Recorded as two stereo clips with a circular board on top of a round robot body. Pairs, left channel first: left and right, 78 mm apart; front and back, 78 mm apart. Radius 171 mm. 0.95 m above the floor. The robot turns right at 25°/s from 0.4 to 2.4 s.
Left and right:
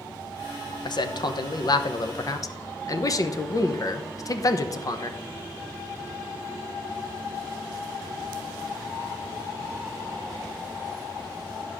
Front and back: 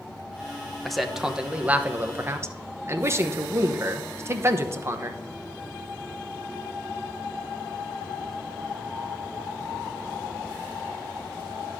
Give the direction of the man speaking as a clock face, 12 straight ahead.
9 o'clock.